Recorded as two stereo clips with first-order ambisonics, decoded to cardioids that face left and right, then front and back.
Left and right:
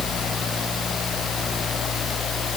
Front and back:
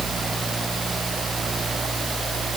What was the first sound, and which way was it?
Only background noise.